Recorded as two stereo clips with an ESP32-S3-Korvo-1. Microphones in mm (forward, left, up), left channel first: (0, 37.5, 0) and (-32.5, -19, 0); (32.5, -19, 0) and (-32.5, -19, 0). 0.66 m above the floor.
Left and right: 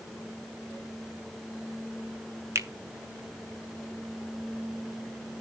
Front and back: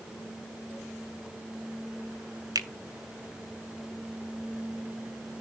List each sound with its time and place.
2.5 s a finger snap: 165° right, 1.2 m